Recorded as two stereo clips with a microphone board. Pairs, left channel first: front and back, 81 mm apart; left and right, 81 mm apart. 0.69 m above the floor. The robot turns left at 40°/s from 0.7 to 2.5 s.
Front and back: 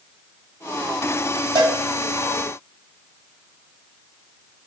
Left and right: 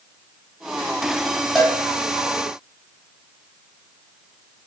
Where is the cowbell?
Straight behind, 1.2 m; by 1.8 s 170° left, 1.2 m.